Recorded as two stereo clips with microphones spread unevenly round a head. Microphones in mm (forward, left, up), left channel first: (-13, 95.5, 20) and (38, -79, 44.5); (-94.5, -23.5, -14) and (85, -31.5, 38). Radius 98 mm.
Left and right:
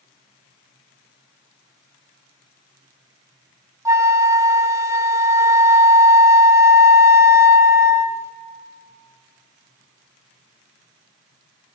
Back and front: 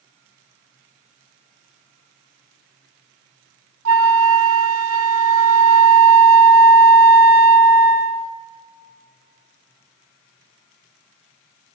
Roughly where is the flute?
Ahead.